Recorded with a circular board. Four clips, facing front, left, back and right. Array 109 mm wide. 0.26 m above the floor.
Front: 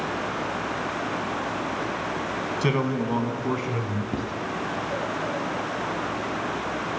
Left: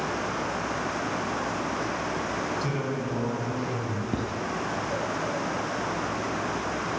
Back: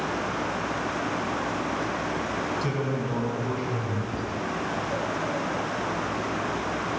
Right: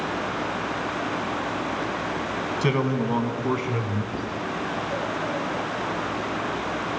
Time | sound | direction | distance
2.6 | a man speaking | 45° right | 2.5 m
4.1 | writing | 45° left | 1.8 m